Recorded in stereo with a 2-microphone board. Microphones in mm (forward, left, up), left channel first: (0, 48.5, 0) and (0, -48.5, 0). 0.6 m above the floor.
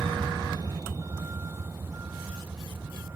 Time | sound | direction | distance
0.0 | a vehicle | 55° right (ahead or behind) | ?